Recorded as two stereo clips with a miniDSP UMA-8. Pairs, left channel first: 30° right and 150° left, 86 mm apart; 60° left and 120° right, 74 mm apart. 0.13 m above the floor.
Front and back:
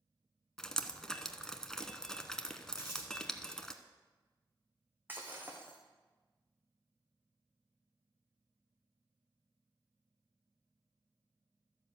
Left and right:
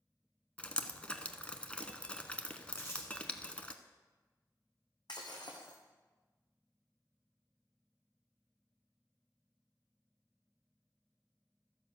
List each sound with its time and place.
0.6 s dripping: 35° left, 0.7 m
2.7 s crumpling: 115° left, 4 m
5.1 s breaking glass: 80° left, 2 m